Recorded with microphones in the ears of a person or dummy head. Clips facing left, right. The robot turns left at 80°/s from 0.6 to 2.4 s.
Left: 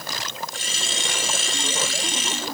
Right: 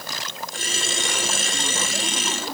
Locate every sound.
Only background noise.